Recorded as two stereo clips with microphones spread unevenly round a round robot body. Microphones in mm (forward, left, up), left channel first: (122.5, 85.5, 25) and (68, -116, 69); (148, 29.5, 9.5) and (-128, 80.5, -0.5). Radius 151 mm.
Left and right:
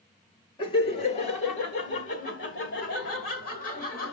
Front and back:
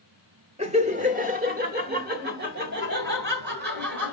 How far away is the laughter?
About 0.9 m.